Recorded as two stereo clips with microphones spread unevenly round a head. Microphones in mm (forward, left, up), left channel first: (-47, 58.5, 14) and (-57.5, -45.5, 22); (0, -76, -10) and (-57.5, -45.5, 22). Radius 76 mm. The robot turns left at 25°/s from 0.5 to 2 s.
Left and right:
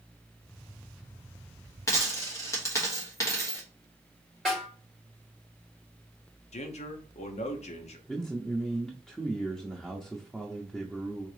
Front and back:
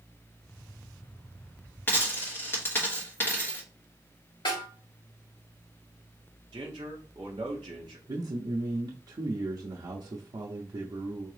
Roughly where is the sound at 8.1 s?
Behind.